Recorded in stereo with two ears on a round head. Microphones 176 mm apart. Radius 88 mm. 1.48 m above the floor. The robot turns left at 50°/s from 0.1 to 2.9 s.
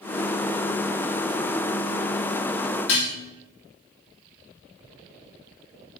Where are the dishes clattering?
70° left (ahead or behind), 1.9 m.